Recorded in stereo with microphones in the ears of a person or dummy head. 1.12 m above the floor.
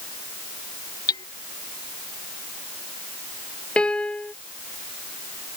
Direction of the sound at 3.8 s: 10° left (ahead or behind).